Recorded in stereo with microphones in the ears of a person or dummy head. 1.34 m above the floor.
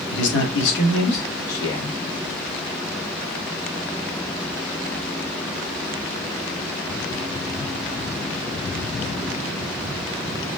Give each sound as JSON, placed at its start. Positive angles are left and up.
{"t": 0.1, "sound": "a man speaking", "side_deg": 65, "distance_m": 1.4}